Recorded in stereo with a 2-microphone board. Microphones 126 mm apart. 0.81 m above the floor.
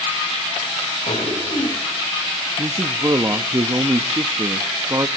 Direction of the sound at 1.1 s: 70° left (ahead or behind).